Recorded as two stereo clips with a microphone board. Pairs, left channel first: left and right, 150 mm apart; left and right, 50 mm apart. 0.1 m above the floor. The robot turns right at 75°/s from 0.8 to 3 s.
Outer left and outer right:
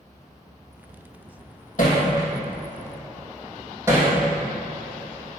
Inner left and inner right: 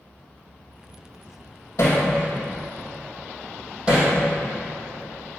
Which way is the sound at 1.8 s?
65° left (ahead or behind).